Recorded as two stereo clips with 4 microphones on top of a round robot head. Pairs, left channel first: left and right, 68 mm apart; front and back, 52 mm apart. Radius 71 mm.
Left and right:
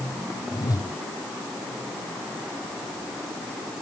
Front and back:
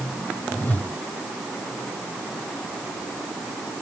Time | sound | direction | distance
0.5 | a whoosh | 55° left | ?